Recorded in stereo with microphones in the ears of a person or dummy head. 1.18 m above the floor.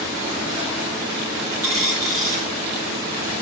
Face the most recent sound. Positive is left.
turn(degrees=-15)  # may be behind; listen again after turning